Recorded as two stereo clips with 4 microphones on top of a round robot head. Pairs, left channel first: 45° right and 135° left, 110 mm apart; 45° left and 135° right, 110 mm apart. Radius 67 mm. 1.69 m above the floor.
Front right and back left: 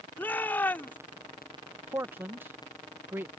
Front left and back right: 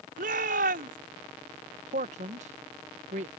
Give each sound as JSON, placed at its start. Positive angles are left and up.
{"t": 0.2, "sound": "a shout", "azimuth_deg": -120}
{"t": 1.9, "sound": "a man speaking", "azimuth_deg": -155}